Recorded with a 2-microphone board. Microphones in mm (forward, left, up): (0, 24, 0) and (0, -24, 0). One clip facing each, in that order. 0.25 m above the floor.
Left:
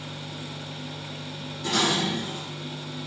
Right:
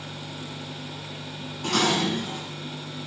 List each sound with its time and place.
1.6 s dishes clattering: 50° right (ahead or behind), 5.5 m